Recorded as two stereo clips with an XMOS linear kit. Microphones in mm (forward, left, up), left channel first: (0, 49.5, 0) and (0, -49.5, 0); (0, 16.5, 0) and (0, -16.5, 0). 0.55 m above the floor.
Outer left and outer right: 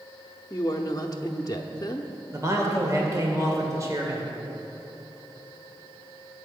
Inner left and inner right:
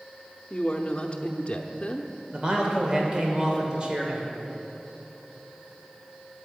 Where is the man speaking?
30° right (ahead or behind), 2.5 m.